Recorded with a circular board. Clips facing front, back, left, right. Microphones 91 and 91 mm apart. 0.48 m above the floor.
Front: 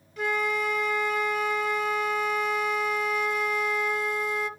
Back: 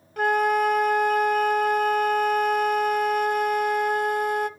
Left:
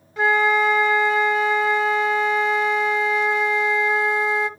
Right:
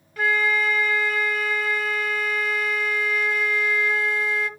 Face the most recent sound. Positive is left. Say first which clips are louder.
# back 7 dB, left 5 dB
turn(degrees=155)